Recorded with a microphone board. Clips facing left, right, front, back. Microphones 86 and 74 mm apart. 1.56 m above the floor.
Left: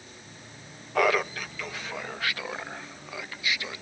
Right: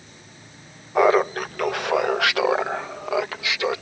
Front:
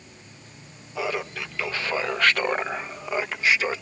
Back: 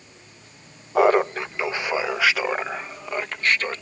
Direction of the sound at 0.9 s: 160° right.